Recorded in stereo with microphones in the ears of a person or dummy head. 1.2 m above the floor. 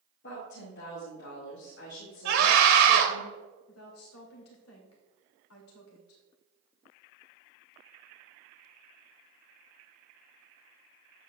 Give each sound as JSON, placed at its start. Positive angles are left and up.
{"t": 0.2, "sound": "a woman speaking", "side_deg": 60, "distance_m": 1.9}
{"t": 2.2, "sound": "a scream", "side_deg": -75, "distance_m": 2.5}
{"t": 3.7, "sound": "a woman speaking", "side_deg": 80, "distance_m": 2.5}